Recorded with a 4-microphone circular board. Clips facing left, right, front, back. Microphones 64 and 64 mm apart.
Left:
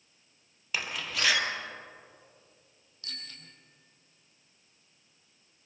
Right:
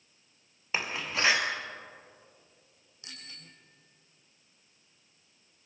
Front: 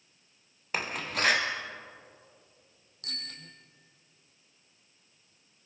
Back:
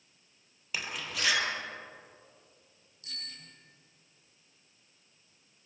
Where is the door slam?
35° right, 2 m.